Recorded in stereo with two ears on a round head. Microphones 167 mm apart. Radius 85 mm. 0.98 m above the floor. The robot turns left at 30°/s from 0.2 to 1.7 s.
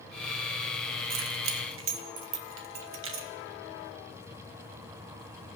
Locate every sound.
1.1 s keys jangling: 70° right (ahead or behind), 0.8 m; by 3.3 s 80° right, 0.8 m